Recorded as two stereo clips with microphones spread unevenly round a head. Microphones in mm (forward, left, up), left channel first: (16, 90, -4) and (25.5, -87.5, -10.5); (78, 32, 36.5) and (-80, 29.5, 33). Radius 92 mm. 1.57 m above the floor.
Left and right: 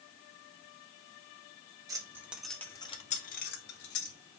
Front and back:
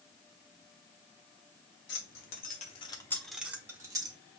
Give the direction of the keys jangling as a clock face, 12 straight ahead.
1 o'clock.